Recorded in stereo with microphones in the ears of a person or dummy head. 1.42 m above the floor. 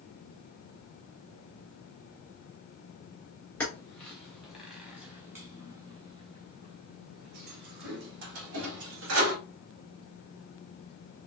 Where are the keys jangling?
15° left (ahead or behind), 2 m; by 9.3 s 75° right (ahead or behind), 2 m.